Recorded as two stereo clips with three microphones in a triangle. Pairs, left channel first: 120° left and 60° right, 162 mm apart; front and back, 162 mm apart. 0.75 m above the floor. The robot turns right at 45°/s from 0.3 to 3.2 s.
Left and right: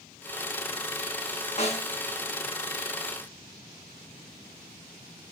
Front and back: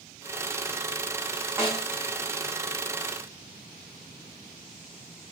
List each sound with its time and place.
1.6 s a snare drum: 115° left, 0.9 m; by 1.9 s 130° left, 0.9 m